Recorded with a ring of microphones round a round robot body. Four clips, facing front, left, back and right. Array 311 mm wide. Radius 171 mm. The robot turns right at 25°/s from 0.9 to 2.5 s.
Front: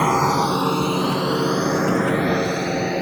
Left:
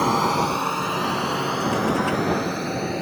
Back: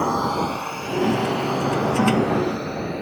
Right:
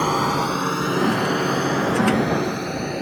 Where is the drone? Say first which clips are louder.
Even, front 4 dB; 10° right; by 3.0 s 5° right.